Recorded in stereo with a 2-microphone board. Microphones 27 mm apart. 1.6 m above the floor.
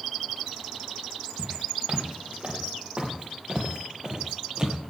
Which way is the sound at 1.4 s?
50° right (ahead or behind).